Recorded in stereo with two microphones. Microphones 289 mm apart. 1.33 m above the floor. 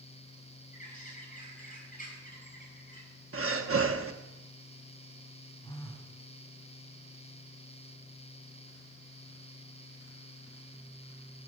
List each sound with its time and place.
0.7 s a bird: 25° left (ahead or behind), 5 m
3.3 s breathing: 50° right (ahead or behind), 1.0 m
5.6 s a phone buzzing: 10° left (ahead or behind), 3 m